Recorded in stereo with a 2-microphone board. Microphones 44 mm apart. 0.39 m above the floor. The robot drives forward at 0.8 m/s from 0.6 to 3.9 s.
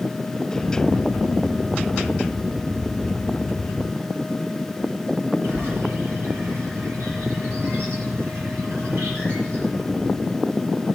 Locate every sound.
5.4 s a bird: 60° right (ahead or behind), 7.5 m